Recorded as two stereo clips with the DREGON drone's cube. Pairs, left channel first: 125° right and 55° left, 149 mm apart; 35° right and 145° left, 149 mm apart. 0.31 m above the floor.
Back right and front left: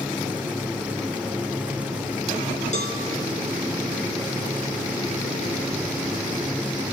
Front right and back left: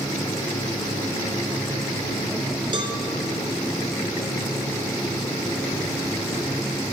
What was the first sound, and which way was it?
A cowbell, 160° right.